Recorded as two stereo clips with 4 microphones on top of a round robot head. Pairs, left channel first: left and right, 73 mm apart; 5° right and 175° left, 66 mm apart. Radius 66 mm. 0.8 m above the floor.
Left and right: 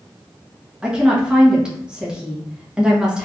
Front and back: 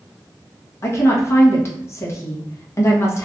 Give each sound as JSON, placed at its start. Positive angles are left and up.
{"t": 0.8, "sound": "a woman speaking", "azimuth_deg": -15, "distance_m": 1.1}